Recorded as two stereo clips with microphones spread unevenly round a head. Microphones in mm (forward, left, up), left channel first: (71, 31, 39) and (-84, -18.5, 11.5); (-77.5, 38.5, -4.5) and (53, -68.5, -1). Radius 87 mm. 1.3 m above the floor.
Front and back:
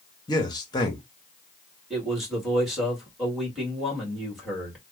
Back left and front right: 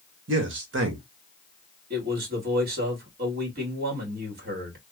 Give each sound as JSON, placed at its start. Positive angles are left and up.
{"t": 0.3, "sound": "a man speaking", "azimuth_deg": -50, "distance_m": 1.3}
{"t": 1.9, "sound": "a man speaking", "azimuth_deg": -75, "distance_m": 1.9}